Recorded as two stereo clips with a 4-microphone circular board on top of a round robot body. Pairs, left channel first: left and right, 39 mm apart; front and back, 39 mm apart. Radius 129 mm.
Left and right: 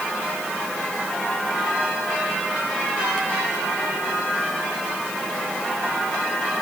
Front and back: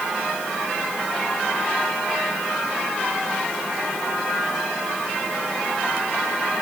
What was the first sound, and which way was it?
Only background noise.